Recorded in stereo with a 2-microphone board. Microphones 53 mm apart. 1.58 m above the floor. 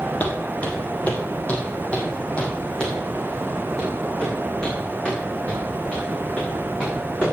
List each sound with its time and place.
0.2 s footsteps: 35° left (ahead or behind), 3 m; by 7.3 s 15° left (ahead or behind), 8.5 m